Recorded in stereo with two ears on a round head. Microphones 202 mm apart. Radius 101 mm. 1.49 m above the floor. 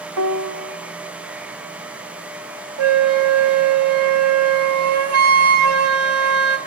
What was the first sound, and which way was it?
A piano, 75° right (ahead or behind).